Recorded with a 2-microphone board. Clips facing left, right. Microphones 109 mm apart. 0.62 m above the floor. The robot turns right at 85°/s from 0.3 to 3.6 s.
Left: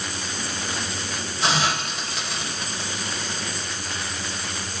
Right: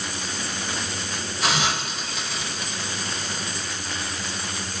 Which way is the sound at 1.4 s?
30° left (ahead or behind).